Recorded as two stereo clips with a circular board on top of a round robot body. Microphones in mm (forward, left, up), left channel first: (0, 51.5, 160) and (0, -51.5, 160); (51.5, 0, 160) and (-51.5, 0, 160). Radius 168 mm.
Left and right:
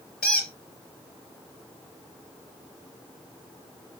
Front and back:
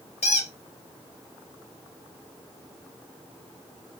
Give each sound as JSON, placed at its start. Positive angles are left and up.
{"t": 0.2, "sound": "a squeak", "azimuth_deg": 0, "distance_m": 3.0}